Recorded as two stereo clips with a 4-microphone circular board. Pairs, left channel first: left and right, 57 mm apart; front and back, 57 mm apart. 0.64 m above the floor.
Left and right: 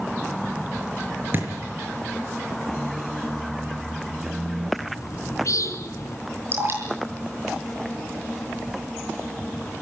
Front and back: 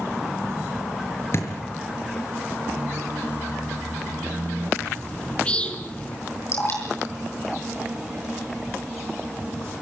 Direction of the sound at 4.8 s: 70° left.